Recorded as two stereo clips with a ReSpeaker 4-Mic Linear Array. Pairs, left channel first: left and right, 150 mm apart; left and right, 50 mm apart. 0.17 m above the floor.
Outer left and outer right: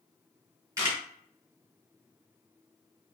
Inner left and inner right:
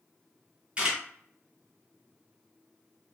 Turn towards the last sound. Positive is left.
turn(degrees=-25)  # may be behind; listen again after turning